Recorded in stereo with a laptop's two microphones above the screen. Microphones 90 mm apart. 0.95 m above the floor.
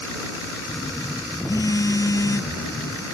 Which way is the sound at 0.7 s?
40° left (ahead or behind).